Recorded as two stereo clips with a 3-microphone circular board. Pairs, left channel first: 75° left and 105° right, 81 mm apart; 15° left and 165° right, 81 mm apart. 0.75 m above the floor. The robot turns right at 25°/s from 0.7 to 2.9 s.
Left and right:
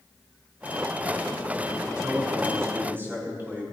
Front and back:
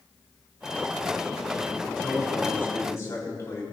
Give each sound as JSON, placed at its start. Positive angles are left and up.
{"t": 1.9, "sound": "a man speaking", "azimuth_deg": -65, "distance_m": 5.0}